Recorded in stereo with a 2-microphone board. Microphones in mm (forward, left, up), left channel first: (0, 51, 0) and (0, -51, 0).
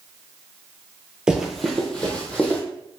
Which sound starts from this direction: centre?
Running footsteps, at 1.3 s.